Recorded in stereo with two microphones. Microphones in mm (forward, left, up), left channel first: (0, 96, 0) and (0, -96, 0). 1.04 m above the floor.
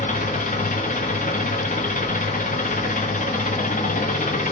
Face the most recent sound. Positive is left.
turn(degrees=45)  # may be behind; listen again after turning